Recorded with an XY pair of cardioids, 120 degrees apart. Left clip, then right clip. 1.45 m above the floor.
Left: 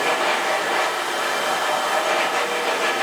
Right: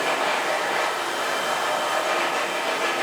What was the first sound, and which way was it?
A machine running, 20° left.